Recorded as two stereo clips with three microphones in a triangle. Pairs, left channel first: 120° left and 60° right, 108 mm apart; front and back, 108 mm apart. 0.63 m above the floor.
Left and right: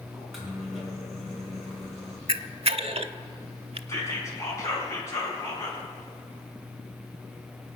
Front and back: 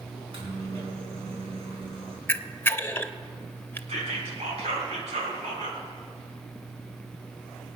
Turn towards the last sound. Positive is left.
turn(degrees=180)